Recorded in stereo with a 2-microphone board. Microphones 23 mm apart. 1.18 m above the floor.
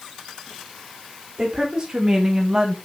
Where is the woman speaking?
30° right (ahead or behind), 4 m; by 2.8 s 35° right (ahead or behind), 1.9 m.